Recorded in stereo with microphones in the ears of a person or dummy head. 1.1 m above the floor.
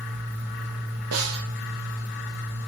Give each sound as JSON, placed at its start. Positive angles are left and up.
{"t": 0.0, "sound": "a fan", "side_deg": 60, "distance_m": 2.0}
{"t": 1.1, "sound": "a snare drum", "side_deg": -85, "distance_m": 1.1}